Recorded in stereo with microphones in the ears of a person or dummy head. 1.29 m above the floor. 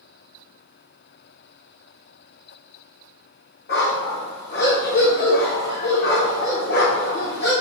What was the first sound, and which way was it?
A dog barking, 40° left (ahead or behind).